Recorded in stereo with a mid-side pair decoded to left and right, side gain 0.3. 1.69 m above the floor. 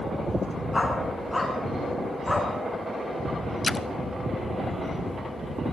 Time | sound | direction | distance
0.7 | a dog barking | 25° left | 7 m
3.6 | a splash | 45° left | 0.8 m